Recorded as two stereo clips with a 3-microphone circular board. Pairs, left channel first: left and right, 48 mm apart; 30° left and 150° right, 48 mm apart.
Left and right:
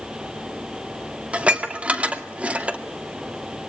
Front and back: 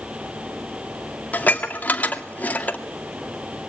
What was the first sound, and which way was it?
Dishes clattering, 25° right.